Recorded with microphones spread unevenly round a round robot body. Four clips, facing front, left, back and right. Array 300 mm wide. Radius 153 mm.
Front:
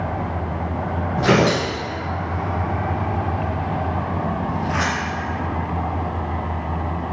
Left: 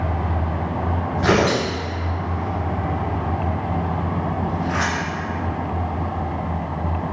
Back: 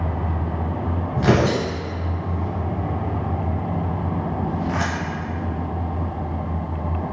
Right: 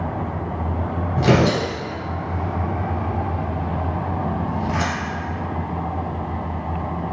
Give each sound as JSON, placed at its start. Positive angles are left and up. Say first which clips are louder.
{"t": 1.2, "sound": "tearing paper", "louder": "right 1 dB, front 2 dB", "azimuth_deg": -140, "distance_m": 1.5}